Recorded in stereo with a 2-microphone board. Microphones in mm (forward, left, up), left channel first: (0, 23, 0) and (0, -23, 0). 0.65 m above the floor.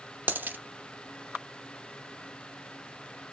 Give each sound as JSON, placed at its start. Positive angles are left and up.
{"t": 0.3, "sound": "a dropped coin", "side_deg": -45, "distance_m": 0.6}